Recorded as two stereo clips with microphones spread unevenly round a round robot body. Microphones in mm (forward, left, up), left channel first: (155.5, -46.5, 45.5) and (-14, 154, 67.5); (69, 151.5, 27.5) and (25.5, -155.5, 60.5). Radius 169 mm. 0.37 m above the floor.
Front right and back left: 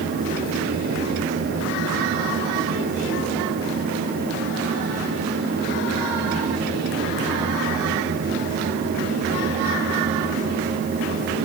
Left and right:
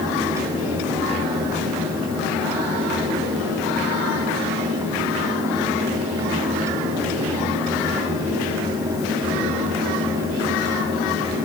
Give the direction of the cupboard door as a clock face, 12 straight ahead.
I don't hear a cupboard door.